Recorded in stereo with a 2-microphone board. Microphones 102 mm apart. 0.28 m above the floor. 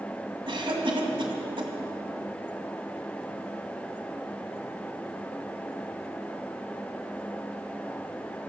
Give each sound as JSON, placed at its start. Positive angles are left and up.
{"t": 0.5, "sound": "a cough", "side_deg": -55, "distance_m": 1.6}